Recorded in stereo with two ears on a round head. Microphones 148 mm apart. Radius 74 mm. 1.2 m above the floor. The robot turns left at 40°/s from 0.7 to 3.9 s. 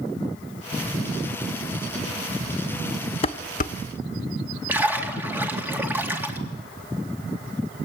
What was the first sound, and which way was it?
Dishes clattering, 35° left (ahead or behind).